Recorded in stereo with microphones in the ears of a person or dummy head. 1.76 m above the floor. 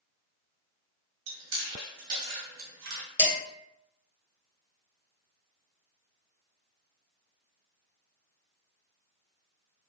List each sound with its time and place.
1.3 s chewing: 70° right (ahead or behind), 0.8 m
3.2 s dishes clattering: 15° left (ahead or behind), 2.0 m